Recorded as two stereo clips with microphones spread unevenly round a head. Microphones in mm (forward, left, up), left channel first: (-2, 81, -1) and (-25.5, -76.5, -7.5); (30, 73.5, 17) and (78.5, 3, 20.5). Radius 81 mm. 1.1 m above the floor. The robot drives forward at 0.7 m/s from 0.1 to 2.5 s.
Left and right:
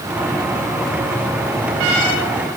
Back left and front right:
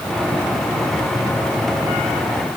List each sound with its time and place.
Only background noise.